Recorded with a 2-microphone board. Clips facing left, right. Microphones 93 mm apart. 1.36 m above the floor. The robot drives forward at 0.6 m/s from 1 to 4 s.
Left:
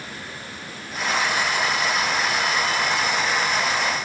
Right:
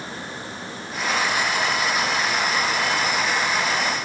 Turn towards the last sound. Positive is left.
No sound to turn to.